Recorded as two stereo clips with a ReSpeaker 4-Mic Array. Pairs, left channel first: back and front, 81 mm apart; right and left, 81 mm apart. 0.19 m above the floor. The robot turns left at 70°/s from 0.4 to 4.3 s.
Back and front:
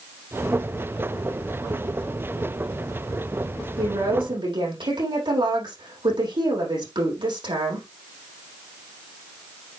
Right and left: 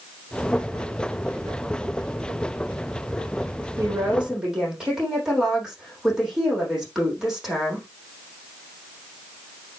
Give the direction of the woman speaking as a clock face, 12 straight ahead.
11 o'clock.